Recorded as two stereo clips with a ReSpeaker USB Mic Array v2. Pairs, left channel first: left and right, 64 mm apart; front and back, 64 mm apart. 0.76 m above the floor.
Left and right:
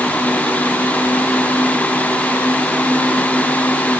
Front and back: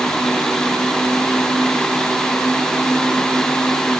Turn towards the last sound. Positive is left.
No sound to turn to.